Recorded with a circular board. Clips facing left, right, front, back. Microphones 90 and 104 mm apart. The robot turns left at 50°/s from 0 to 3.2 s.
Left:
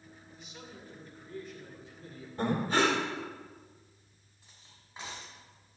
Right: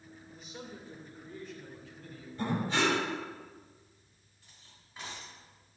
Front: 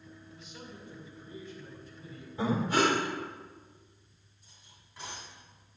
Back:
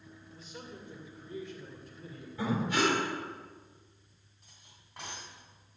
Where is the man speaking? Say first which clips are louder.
Right 4 dB, back 2 dB; 125° right, 2.5 m; by 2.3 s 135° left, 2.5 m.